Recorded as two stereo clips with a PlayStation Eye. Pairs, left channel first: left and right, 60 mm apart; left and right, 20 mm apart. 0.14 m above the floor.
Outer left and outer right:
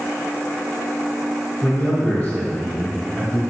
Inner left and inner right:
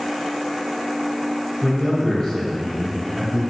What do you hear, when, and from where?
1.6 s a man speaking: 30° left (ahead or behind), 1.4 m